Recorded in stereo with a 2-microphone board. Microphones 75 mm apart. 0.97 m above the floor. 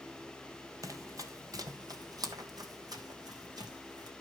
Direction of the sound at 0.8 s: 50° right (ahead or behind).